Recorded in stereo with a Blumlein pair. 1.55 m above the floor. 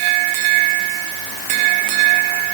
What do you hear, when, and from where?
Only background noise.